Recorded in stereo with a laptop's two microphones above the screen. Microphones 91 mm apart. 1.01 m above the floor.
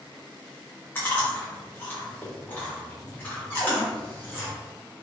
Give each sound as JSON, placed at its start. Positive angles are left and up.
{"t": 0.9, "sound": "chewing", "side_deg": 20, "distance_m": 0.8}
{"t": 3.5, "sound": "a cupboard door", "side_deg": -30, "distance_m": 1.6}